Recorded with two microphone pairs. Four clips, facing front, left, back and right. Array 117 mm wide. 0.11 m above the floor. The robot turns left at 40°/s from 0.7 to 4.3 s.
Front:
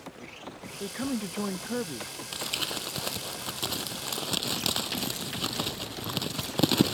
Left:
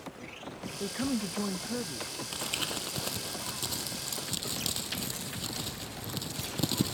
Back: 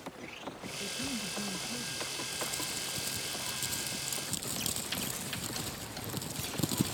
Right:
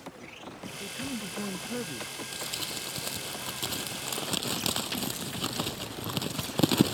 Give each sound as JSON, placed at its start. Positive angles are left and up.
{"t": 0.8, "sound": "a man speaking", "azimuth_deg": 35}
{"t": 2.3, "sound": "crumpling", "azimuth_deg": 40}